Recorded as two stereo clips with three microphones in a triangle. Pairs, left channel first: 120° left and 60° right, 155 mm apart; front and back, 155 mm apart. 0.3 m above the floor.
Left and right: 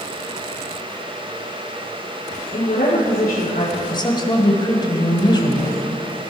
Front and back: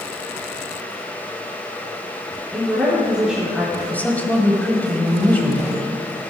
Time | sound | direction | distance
2.5 | a woman speaking | 90° left | 3.5 m
3.9 | a woman speaking | 75° left | 1.6 m